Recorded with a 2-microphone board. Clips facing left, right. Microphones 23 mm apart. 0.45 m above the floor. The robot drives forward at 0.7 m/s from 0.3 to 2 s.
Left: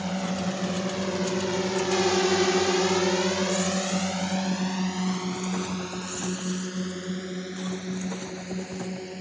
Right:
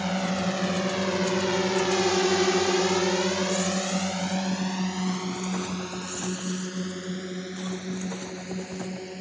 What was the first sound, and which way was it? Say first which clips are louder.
A drone: right 2 dB; 25° right (ahead or behind).